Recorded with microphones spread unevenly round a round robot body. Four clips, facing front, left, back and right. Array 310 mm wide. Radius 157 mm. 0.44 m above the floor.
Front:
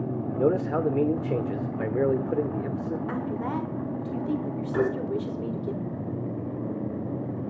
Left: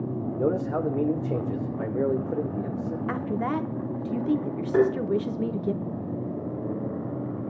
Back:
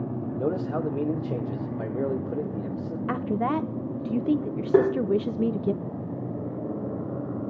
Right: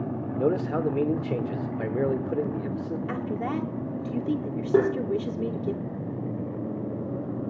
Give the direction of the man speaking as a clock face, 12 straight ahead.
1 o'clock.